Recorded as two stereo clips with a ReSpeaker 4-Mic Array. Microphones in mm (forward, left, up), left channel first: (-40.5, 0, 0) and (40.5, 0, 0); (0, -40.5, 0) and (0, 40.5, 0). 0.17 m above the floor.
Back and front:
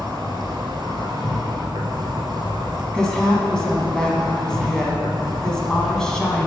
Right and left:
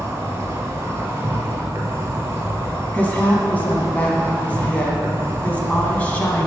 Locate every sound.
0.0 s an insect: 35° left, 1.2 m
2.9 s a woman speaking: 115° right, 1.0 m